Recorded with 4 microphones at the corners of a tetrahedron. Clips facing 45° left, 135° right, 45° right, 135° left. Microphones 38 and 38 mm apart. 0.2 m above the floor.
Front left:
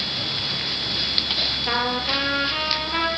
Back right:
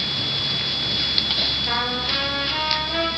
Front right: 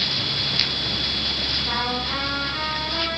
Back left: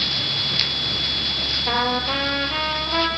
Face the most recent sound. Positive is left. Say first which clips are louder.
# even, back left 4 dB
turn(degrees=120)